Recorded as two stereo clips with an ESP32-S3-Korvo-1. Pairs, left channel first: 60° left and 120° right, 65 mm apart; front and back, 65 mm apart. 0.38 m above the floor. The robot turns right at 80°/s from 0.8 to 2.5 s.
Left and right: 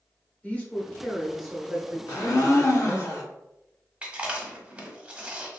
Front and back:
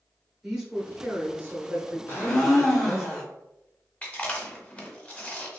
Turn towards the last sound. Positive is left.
turn(degrees=-60)